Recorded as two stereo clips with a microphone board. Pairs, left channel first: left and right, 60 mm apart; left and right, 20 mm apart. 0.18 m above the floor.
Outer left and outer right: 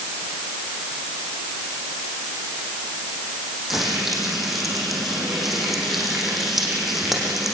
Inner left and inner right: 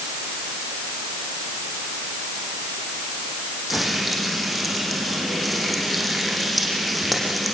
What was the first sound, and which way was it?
Frying, 5° right (ahead or behind).